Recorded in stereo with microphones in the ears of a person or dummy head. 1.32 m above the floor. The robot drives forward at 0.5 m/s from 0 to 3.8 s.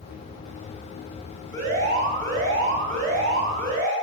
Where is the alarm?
45° right (ahead or behind), 8 m; by 3.9 s 40° right (ahead or behind), 9 m.